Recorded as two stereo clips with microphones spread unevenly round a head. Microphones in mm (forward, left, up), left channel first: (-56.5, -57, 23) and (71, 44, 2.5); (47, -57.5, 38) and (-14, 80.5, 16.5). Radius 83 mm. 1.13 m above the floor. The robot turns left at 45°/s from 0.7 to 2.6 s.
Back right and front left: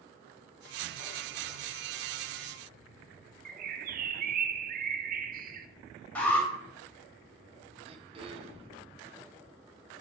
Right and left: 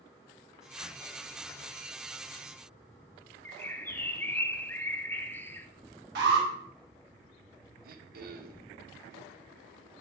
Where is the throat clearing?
95° left, 1.1 m.